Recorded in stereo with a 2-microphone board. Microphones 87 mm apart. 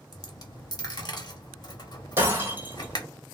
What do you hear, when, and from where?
0.1 s a dropped coin: 50° left (ahead or behind), 0.8 m
2.2 s breaking glass: 25° right (ahead or behind), 1.6 m